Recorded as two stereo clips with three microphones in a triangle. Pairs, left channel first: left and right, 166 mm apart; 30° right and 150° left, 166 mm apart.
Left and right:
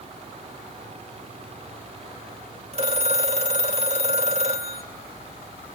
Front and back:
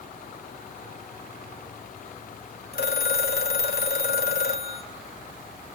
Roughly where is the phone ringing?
Ahead right.